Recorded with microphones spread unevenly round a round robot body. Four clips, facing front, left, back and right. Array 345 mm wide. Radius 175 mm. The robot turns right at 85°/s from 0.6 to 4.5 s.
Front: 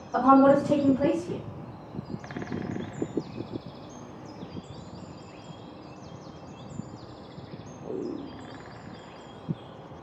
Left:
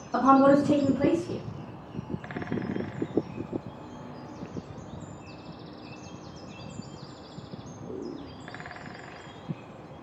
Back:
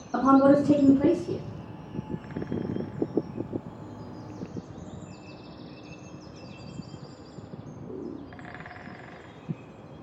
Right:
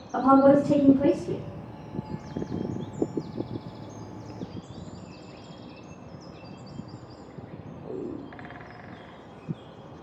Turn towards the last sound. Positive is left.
turn(degrees=145)